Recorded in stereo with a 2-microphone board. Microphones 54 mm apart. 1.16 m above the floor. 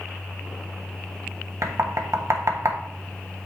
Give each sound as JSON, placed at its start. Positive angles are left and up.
{"t": 1.6, "sound": "knocking", "side_deg": -65, "distance_m": 1.3}